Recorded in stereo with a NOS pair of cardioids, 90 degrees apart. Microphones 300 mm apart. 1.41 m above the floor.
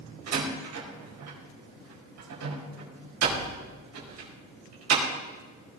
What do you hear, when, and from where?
0.3 s a door slam: 65° right, 5 m